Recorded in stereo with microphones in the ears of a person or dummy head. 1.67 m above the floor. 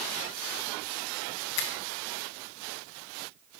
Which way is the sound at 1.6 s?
55° left (ahead or behind).